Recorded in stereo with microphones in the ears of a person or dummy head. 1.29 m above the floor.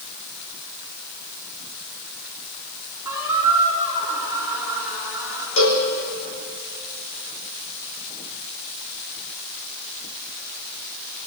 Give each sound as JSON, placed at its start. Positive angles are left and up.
{"t": 3.0, "sound": "a squeak", "side_deg": -10, "distance_m": 6.0}
{"t": 5.6, "sound": "a cowbell", "side_deg": 65, "distance_m": 3.5}